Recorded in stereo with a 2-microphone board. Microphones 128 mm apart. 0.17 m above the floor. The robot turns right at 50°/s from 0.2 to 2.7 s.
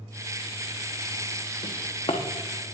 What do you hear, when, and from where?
1.6 s a drawer: 65° left (ahead or behind), 2.5 m; by 2.2 s 35° left (ahead or behind), 2.5 m